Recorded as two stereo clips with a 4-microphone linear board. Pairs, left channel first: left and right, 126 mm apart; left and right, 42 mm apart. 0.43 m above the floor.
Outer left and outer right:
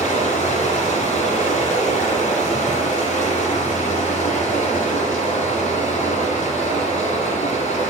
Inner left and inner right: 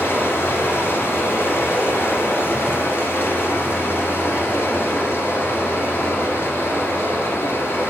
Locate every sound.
0.0 s running water: 80° left, 1.1 m